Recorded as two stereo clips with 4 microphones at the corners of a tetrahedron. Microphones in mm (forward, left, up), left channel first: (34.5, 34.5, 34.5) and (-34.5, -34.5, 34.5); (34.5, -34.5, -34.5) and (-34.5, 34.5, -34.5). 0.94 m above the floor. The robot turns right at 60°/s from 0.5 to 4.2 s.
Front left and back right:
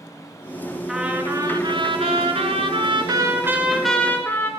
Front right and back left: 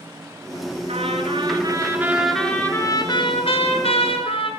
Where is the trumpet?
140° left, 5 m; by 4.5 s 25° right, 5 m.